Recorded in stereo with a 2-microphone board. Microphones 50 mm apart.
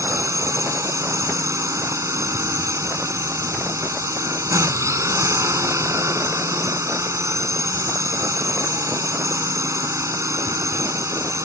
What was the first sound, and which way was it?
A drone, 75° right (ahead or behind).